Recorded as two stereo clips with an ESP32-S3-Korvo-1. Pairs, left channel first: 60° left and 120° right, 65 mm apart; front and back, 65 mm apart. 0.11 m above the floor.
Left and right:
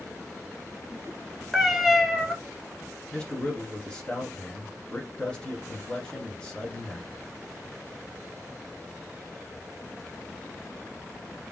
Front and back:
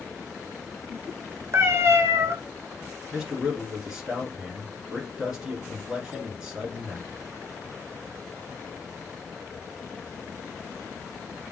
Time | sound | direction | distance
1.5 | a cat meowing | 155° left | 0.6 m
3.1 | a man speaking | 110° left | 1.3 m